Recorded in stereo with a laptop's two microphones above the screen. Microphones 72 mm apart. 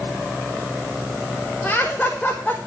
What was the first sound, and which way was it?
Laughter, 15° left (ahead or behind).